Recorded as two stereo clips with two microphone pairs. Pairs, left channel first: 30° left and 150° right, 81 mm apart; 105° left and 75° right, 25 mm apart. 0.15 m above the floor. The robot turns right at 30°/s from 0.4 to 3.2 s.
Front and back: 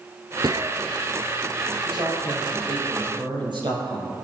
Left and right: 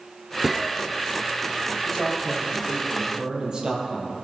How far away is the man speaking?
About 5.5 m.